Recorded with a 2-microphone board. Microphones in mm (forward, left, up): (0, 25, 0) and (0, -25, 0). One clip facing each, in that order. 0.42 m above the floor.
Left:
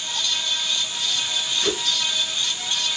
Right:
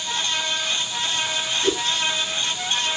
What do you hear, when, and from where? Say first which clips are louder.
1.6 s a whoosh: right 4 dB; 70° left (ahead or behind), 3 m